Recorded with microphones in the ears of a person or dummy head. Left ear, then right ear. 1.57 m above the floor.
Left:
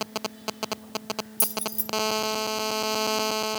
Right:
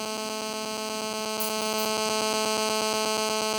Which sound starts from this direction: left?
Keys jangling, at 1.4 s.